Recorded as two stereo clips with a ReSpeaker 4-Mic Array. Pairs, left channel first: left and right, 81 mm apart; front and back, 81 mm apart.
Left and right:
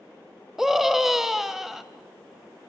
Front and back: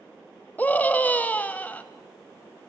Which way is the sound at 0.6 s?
10° right.